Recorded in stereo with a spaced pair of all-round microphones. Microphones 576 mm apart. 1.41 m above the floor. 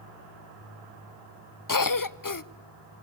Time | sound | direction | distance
1.7 | a cough | 35° left (ahead or behind) | 0.6 m